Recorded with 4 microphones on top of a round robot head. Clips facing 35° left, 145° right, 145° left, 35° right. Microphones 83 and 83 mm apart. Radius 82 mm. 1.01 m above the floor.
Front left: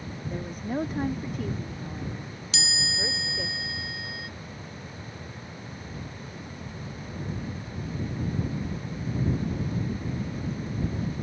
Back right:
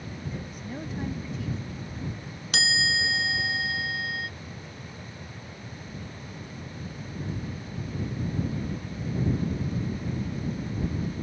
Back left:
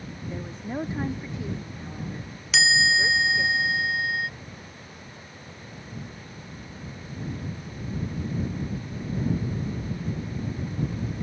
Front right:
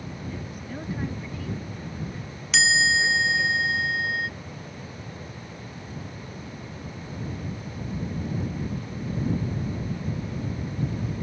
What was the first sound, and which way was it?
A woman speaking, 85° left.